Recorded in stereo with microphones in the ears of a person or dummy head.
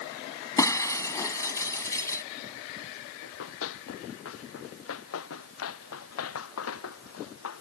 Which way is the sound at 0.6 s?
15° left (ahead or behind).